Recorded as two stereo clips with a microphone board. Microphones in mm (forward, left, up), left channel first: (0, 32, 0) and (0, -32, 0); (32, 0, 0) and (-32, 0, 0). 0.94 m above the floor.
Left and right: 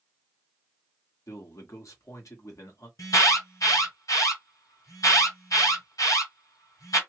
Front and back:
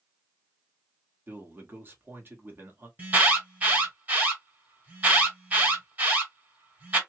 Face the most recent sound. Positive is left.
turn(degrees=120)